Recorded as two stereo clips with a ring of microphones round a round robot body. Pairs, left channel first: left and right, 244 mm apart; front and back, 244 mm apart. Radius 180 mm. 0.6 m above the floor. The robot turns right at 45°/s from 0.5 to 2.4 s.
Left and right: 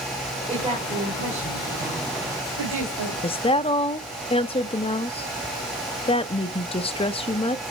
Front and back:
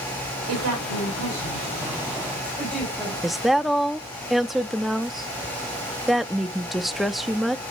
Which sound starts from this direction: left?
A woman speaking, at 3.2 s.